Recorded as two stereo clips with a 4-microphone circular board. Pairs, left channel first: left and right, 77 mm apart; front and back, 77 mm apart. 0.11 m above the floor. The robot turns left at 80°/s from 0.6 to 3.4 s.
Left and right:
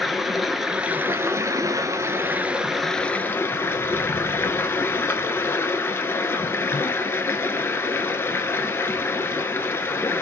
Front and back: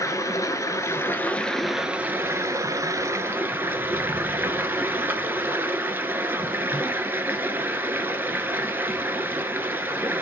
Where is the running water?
5° right, 0.8 m; by 10.2 s 135° left, 0.8 m.